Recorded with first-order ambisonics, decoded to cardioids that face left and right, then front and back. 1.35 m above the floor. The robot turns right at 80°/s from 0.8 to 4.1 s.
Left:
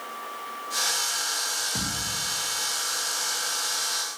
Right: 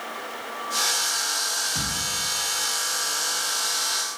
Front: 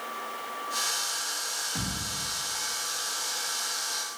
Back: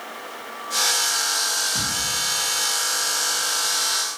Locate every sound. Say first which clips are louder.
1.8 s a thud: right 2 dB, back 9 dB; 105° left, 1.8 m; by 2.1 s 135° left, 1.8 m